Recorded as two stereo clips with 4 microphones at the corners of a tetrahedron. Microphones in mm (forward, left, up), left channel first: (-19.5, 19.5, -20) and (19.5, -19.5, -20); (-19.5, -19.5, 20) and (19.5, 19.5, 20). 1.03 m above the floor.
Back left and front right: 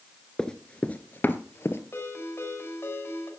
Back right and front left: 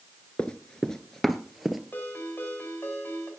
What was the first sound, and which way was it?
Running footsteps, 160° right.